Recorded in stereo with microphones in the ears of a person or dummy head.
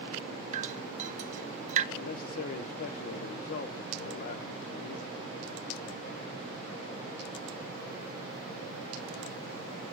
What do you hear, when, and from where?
0.5 s dripping: 50° right (ahead or behind), 0.7 m
1.9 s a man speaking: 60° left (ahead or behind), 0.9 m